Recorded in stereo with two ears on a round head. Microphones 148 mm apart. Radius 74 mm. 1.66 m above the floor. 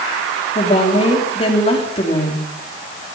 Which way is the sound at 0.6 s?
35° left (ahead or behind).